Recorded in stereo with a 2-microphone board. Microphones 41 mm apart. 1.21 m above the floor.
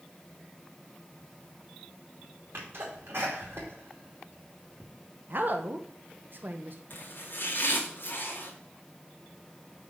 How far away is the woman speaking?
About 0.7 m.